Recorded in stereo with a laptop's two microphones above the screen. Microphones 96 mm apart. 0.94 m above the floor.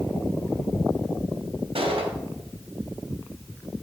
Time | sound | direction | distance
1.8 | a gunshot | 80° right | 2 m